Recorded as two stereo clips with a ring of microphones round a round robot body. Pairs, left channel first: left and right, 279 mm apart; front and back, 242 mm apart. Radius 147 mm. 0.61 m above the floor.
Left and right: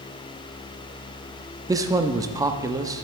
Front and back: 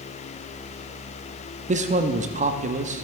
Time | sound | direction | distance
1.7 | a man speaking | 155° right | 0.7 m